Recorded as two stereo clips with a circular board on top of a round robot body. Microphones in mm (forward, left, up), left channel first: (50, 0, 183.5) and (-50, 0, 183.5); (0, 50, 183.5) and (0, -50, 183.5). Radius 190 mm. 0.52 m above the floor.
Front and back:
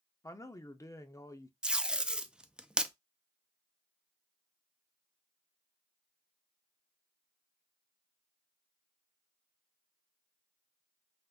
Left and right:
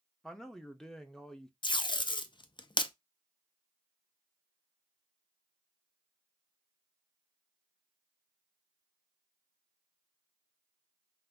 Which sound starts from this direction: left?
Tape being pulled, at 1.6 s.